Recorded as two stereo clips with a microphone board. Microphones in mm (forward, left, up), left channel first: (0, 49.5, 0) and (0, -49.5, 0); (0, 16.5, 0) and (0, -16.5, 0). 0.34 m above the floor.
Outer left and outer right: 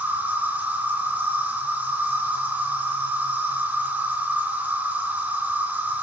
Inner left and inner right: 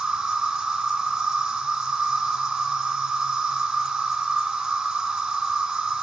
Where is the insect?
15° right (ahead or behind), 2.5 m.